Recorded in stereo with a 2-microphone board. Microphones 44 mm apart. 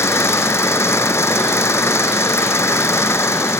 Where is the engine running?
85° left.